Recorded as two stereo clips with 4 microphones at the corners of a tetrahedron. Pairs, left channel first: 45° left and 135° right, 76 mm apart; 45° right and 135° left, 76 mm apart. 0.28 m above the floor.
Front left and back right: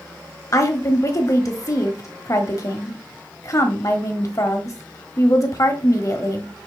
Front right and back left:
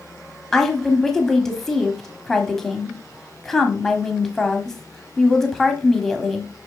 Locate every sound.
0.5 s a woman speaking: 35° left, 1.2 m